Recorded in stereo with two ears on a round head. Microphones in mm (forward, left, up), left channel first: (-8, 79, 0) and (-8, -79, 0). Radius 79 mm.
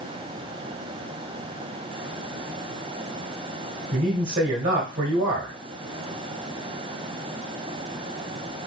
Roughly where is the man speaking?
Right.